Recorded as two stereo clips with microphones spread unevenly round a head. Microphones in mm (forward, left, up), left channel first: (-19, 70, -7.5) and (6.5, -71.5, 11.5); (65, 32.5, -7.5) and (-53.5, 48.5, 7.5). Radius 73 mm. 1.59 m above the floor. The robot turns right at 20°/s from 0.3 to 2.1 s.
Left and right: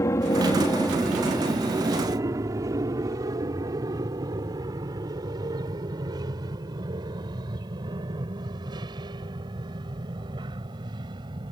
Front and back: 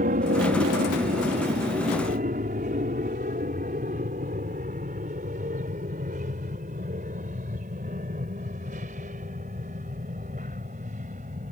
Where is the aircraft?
170° left; by 11.5 s 140° right.